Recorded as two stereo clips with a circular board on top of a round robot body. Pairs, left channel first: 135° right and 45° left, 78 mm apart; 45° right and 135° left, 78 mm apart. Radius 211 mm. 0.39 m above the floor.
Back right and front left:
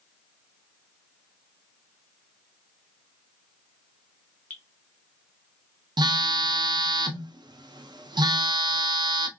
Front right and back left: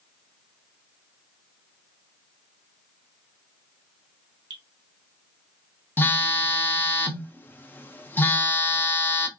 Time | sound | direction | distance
4.5 | dripping | 155° left | 1.2 m
6.0 | a phone buzzing | 20° left | 0.7 m